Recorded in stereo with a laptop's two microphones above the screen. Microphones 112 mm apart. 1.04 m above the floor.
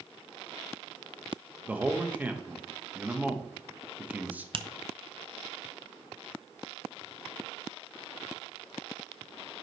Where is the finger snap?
50° right (ahead or behind), 0.5 m.